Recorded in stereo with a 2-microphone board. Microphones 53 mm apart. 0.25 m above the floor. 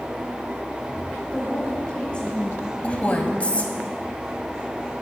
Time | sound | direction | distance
1.3 | a woman speaking | 20° left (ahead or behind) | 1.5 m
2.8 | a woman speaking | 25° left (ahead or behind) | 1.2 m